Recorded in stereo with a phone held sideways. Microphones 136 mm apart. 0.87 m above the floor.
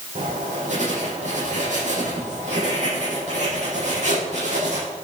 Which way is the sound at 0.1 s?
60° right (ahead or behind).